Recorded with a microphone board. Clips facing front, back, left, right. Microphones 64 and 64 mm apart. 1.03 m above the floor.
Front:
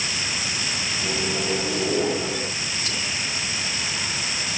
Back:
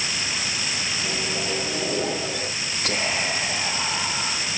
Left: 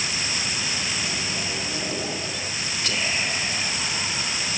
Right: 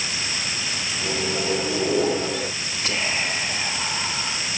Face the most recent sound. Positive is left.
turn(degrees=-160)